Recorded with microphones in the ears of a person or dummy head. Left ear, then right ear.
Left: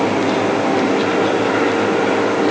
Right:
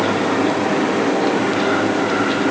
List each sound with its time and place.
Only background noise.